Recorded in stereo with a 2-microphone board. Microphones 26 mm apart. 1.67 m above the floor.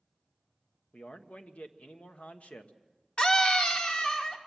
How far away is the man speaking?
About 1.2 m.